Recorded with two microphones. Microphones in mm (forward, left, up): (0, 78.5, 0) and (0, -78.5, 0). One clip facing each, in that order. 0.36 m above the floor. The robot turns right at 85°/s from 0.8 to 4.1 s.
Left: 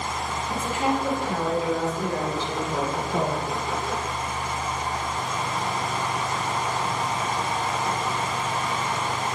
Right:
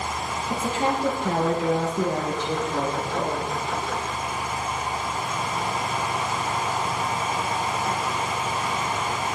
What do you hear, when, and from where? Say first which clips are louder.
0.5 s a woman speaking: right 1 dB; 155° right, 8.5 m; by 3.5 s 80° left, 8.5 m